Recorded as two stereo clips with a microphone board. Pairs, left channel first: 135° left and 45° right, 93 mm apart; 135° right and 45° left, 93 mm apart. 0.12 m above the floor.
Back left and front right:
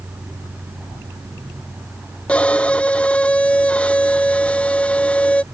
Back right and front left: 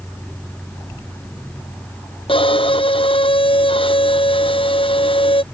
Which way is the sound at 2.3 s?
150° right.